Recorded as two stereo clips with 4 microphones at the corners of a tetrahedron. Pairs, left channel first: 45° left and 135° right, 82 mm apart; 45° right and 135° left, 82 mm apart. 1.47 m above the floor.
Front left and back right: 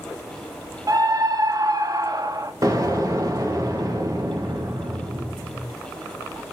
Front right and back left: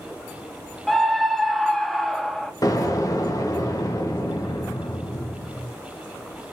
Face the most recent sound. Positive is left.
turn(degrees=-90)